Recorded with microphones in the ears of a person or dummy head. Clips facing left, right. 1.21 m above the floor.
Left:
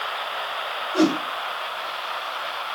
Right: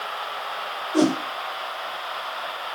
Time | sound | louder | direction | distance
0.9 | a whoosh | even | 40° right (ahead or behind) | 1.3 m